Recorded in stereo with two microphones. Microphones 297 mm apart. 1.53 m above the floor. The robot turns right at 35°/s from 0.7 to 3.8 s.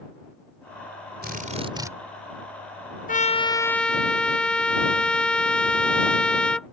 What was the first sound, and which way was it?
A drill, 35° right (ahead or behind).